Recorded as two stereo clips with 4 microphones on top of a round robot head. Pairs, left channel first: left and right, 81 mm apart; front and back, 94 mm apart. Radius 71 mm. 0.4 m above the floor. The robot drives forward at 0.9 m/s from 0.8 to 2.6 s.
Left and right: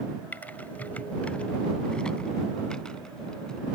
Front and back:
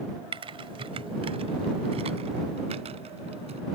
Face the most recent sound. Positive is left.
turn(degrees=175)